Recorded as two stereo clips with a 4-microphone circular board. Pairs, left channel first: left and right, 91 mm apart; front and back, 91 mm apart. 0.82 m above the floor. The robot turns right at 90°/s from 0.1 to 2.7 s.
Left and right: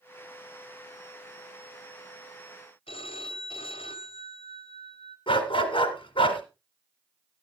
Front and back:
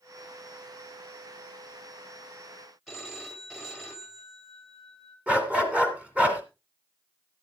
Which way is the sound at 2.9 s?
90° left.